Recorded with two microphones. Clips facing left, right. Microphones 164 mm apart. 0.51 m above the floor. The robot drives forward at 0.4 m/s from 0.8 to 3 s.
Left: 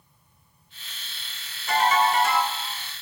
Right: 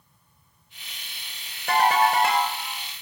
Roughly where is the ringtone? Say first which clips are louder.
Right 1 dB; right.